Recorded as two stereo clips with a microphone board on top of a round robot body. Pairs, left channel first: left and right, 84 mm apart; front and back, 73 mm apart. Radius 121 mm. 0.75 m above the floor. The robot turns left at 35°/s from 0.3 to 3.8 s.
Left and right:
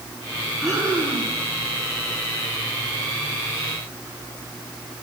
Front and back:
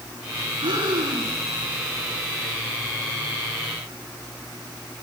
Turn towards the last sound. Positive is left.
turn(degrees=75)